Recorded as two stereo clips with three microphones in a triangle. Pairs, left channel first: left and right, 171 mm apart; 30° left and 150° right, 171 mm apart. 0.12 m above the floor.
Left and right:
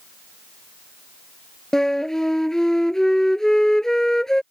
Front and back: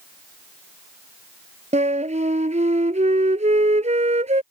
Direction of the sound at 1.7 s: 175° left.